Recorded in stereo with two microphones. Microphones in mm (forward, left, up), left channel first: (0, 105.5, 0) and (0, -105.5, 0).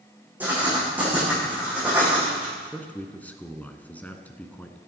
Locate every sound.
0.4 s writing: 10° right (ahead or behind), 8 m
2.6 s a man speaking: 5° left (ahead or behind), 1.5 m